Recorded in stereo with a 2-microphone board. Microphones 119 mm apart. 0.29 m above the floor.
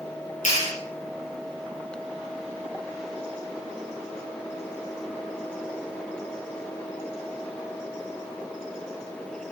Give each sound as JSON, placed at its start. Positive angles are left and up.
{"t": 0.5, "sound": "a clap", "side_deg": 70, "distance_m": 5.5}